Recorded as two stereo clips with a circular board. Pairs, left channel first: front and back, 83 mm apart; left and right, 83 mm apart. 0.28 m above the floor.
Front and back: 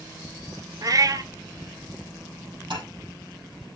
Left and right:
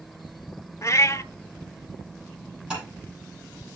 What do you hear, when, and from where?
0.8 s a cat meowing: 140° left, 0.6 m
2.7 s tapping: 165° right, 9 m